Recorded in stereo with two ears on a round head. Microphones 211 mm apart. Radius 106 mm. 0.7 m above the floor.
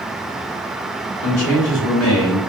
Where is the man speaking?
75° left (ahead or behind), 2 m.